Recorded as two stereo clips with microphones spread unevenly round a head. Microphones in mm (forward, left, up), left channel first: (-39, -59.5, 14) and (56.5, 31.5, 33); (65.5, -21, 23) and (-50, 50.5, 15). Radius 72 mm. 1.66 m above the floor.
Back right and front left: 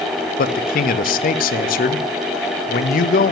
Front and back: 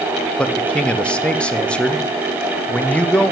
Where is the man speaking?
115° right, 0.6 m.